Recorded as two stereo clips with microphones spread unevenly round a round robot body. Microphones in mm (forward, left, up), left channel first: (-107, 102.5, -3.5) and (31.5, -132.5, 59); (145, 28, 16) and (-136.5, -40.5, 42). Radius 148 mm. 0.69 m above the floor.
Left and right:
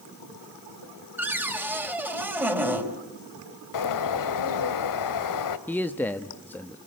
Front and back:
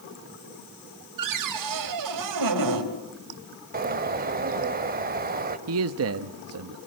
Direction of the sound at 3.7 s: 130° left.